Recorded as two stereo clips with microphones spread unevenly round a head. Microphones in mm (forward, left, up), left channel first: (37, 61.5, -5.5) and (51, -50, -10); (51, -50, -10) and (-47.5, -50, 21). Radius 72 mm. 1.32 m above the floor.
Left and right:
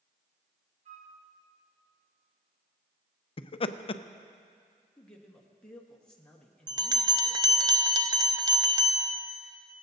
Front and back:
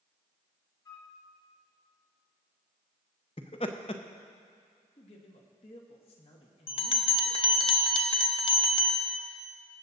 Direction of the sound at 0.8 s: 55° right.